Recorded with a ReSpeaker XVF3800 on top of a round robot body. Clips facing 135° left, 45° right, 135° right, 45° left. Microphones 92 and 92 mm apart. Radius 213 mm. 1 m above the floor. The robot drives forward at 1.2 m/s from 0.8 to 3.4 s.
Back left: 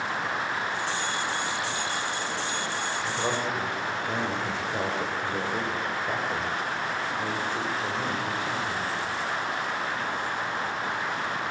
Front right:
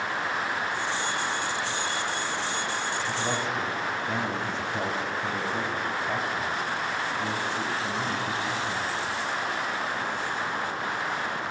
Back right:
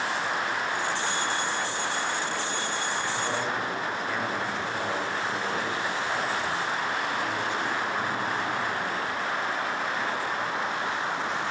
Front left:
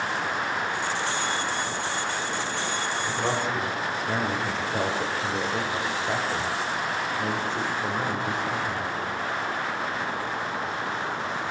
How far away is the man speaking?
About 5.5 m.